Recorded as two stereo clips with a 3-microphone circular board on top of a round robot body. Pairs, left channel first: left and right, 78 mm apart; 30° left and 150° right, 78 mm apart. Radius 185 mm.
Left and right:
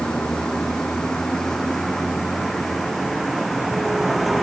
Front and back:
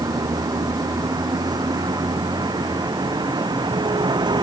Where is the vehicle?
170° left; by 4.4 s straight behind.